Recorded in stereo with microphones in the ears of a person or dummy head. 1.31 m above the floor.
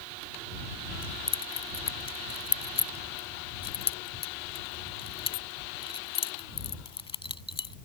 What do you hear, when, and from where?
1.0 s keys jangling: 25° left (ahead or behind)